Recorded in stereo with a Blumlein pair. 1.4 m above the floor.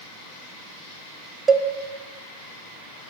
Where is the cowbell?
20° right, 0.6 m.